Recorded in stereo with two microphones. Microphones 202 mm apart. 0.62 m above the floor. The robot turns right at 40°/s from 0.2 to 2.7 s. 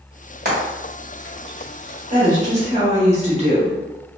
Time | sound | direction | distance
0.5 | frying | 55° right (ahead or behind) | 1.4 m
2.1 | a woman speaking | 40° right (ahead or behind) | 1.1 m